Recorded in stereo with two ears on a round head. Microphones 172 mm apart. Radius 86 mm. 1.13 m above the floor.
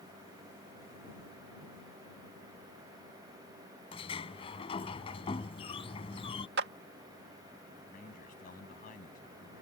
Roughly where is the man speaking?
Left.